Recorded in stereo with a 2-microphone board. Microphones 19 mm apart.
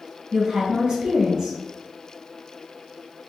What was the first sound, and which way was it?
A woman speaking, 50° right (ahead or behind).